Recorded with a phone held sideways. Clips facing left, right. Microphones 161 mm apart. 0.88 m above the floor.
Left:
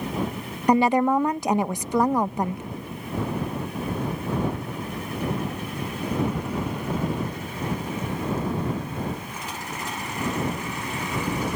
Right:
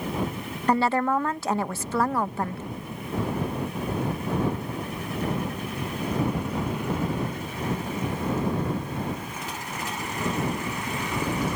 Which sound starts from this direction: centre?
A woman speaking, at 0.7 s.